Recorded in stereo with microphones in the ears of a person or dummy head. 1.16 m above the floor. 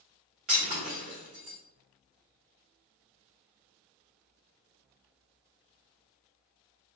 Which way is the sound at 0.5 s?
35° right (ahead or behind).